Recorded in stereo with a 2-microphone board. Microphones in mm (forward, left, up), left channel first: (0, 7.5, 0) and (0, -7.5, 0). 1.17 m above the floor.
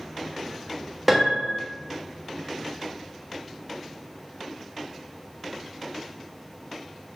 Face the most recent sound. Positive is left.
turn(degrees=-15)  # may be behind; listen again after turning